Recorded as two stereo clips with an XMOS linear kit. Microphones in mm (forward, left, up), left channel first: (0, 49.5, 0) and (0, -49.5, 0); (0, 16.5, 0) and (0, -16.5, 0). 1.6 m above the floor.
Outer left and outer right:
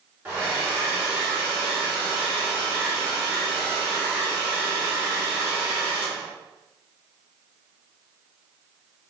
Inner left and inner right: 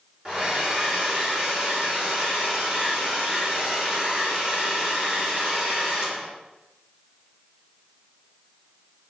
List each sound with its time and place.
0.2 s a hair dryer: 20° right (ahead or behind), 1.2 m